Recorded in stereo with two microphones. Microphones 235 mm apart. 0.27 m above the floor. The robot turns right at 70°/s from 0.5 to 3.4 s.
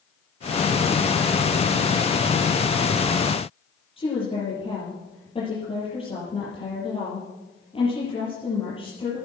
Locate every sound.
4.0 s a woman speaking: 25° left (ahead or behind), 7.5 m